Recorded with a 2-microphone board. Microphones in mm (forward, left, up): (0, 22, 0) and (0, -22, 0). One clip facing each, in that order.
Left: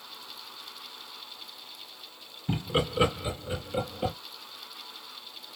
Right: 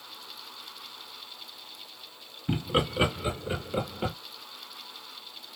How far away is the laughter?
About 2.5 m.